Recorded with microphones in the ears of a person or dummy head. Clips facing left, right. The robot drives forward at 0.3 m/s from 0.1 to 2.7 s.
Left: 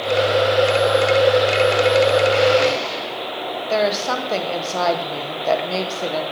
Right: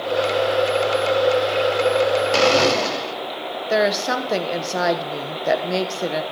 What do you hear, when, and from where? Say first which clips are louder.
2.3 s a blender: left 1 dB; 75° right (ahead or behind), 0.9 m
3.7 s a woman speaking: right 1 dB; 15° right (ahead or behind), 1.1 m